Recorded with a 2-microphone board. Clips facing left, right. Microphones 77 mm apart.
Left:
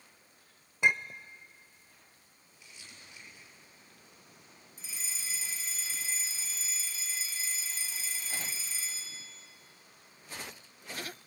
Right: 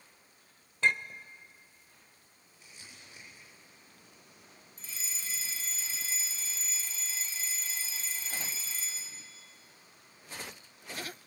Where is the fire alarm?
5° left (ahead or behind), 2.5 m.